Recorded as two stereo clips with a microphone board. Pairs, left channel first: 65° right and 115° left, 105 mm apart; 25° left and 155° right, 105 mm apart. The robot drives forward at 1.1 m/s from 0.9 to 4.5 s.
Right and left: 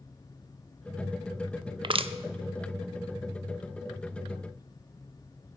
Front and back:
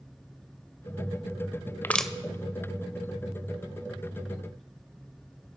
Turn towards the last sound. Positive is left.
turn(degrees=170)